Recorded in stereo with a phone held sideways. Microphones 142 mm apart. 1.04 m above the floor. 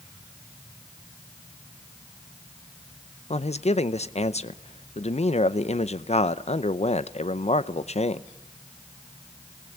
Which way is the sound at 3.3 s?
50° left (ahead or behind).